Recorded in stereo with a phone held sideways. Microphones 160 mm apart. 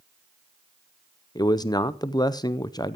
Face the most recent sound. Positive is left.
turn(degrees=25)  # may be behind; listen again after turning